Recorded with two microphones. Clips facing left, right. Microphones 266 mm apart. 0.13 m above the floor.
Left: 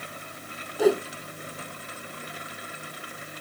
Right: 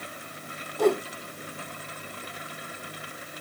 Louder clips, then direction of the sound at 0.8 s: Left 2 dB; 5° left (ahead or behind).